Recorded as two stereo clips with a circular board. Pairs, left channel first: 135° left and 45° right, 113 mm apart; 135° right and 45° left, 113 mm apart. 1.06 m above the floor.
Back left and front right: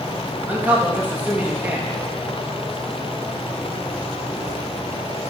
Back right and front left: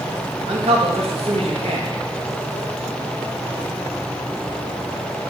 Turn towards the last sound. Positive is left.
turn(degrees=30)